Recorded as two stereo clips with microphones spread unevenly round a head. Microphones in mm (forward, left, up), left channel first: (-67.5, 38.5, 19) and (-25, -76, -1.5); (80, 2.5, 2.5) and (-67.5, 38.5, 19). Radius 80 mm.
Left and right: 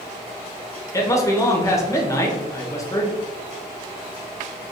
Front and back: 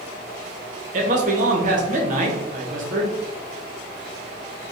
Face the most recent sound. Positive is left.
turn(degrees=175)